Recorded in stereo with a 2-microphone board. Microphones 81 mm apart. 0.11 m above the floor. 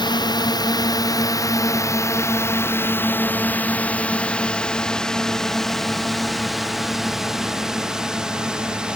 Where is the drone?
65° left (ahead or behind); by 9.0 s 10° right (ahead or behind).